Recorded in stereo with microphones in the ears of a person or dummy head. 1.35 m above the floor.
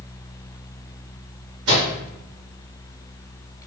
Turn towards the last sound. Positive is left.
turn(degrees=-70)  # may be behind; listen again after turning